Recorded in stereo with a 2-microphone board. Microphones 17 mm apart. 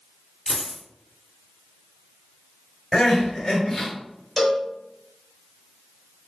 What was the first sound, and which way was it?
A dropped coin, 35° left (ahead or behind).